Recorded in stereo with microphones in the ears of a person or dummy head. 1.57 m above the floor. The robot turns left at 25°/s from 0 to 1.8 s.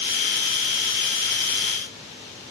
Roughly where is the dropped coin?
I don't hear a dropped coin.